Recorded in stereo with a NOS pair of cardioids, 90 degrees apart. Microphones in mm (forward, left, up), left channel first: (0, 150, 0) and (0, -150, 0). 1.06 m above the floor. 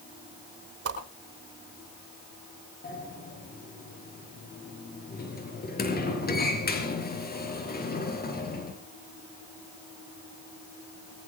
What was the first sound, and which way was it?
A whoosh, 50° right.